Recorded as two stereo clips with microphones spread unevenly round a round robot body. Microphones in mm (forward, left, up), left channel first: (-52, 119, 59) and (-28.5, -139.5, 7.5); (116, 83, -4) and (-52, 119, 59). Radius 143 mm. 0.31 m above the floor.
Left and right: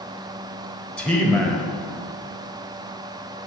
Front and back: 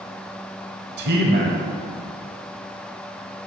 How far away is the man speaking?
About 1.4 m.